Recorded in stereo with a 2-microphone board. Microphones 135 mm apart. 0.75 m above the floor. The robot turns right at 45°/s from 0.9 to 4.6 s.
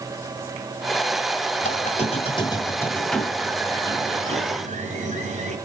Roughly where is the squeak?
Left.